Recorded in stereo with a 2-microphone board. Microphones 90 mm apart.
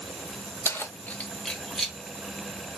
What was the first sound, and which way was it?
Keys jangling, 30° left (ahead or behind).